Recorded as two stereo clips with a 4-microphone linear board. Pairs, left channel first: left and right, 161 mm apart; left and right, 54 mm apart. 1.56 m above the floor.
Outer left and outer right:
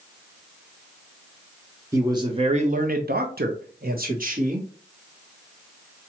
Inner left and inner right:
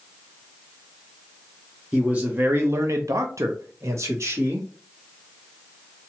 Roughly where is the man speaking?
Centre.